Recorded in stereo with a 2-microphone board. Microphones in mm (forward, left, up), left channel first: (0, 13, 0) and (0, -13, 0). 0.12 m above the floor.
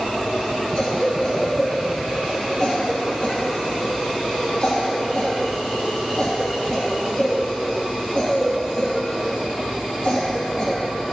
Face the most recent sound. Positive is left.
turn(degrees=30)  # may be behind; listen again after turning